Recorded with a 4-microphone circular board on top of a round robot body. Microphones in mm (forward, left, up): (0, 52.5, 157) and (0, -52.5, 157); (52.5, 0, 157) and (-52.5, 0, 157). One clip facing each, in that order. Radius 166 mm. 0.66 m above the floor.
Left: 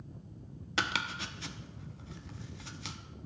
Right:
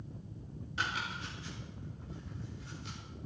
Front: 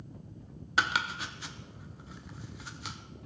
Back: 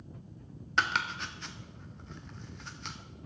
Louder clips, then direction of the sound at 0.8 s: Left 3 dB, front 1 dB; 85° left.